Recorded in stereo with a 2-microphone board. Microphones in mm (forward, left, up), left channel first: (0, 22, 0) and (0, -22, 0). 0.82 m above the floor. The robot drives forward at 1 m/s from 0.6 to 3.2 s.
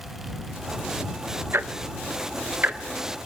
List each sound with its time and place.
1.5 s ticking: 60° right (ahead or behind), 1.0 m; by 3.3 s 35° right (ahead or behind), 1.6 m